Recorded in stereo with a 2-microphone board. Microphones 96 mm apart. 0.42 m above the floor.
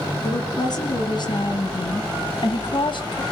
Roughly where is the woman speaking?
Left.